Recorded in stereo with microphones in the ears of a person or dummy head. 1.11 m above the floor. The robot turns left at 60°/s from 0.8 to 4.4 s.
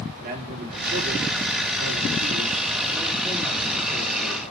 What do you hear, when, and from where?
0.2 s a man speaking: 40° right, 3 m; by 4.4 s 100° left, 3 m